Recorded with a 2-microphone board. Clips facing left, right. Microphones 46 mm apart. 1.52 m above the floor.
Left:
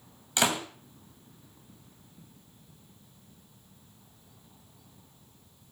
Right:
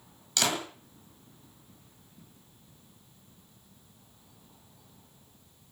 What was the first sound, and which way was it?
A door slam, 25° left (ahead or behind).